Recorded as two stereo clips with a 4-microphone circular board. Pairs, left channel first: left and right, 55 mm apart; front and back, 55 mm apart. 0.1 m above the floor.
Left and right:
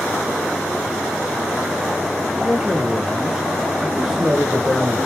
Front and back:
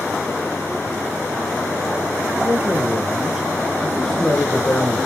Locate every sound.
2.4 s a man speaking: 160° right, 2.5 m; by 5.0 s 5° right, 2 m